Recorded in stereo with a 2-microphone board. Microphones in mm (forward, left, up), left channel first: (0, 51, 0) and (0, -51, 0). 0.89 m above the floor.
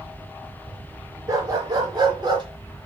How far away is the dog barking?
About 4 m.